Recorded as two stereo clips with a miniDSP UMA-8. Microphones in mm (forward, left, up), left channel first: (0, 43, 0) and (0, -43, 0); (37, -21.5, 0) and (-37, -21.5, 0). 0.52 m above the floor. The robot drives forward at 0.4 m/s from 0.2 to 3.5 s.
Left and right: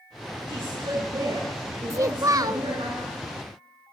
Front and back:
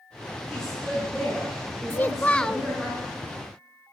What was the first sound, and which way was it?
A woman speaking, 80° right.